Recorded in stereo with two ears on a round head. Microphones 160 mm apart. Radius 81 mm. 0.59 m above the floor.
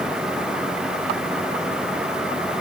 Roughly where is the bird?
I don't hear a bird.